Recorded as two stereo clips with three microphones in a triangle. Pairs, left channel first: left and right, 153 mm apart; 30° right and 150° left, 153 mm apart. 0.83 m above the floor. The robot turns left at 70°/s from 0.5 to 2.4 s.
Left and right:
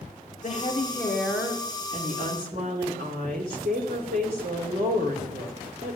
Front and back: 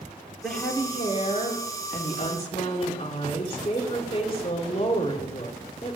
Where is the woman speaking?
55° left, 3 m; by 6.0 s 80° right, 3 m.